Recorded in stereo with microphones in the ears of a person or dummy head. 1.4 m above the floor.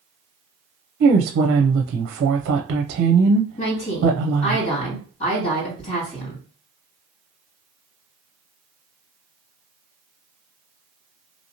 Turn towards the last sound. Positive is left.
turn(degrees=50)  # may be behind; listen again after turning